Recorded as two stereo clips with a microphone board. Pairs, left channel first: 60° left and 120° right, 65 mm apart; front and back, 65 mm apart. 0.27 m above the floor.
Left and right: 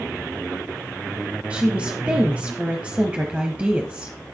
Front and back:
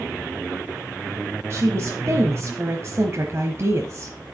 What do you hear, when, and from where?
1.5 s a woman speaking: 175° left, 1.3 m